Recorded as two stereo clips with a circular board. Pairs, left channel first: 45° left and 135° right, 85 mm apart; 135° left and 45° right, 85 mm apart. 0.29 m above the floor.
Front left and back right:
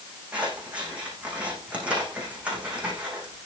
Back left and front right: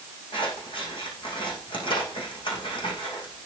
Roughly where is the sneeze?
I don't hear a sneeze.